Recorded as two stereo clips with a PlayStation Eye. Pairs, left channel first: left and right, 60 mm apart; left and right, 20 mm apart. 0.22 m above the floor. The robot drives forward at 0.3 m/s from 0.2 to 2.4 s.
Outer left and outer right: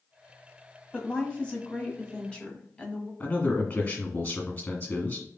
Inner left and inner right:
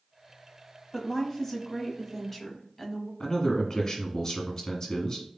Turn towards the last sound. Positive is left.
turn(degrees=35)  # may be behind; listen again after turning